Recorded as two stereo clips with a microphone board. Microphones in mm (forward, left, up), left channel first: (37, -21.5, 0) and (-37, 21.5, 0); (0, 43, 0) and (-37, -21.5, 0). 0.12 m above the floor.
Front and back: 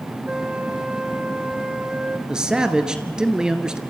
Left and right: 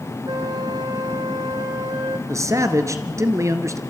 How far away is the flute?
About 1.4 m.